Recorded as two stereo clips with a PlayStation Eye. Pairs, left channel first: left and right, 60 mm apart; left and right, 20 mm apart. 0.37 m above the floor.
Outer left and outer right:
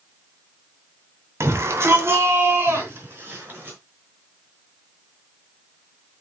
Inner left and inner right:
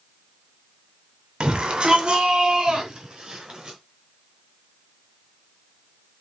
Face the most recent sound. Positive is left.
turn(degrees=-35)  # may be behind; listen again after turning